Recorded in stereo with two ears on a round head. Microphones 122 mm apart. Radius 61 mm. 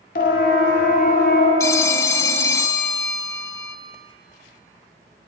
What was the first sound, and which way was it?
A siren, 65° left (ahead or behind).